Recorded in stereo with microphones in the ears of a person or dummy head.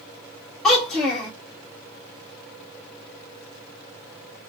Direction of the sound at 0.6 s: 5° left (ahead or behind).